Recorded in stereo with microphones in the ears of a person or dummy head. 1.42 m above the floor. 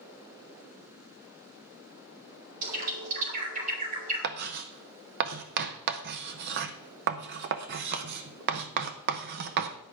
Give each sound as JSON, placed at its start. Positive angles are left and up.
{"t": 2.6, "sound": "a bird", "side_deg": -45, "distance_m": 3.5}
{"t": 4.2, "sound": "writing", "side_deg": -60, "distance_m": 0.8}